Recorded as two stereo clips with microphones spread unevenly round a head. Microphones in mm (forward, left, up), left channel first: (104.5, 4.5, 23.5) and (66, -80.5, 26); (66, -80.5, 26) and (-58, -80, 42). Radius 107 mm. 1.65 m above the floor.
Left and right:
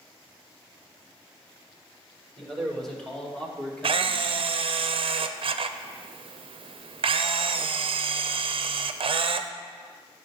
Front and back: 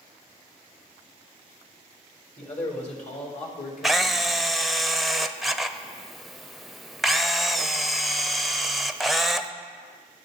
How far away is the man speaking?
About 3 m.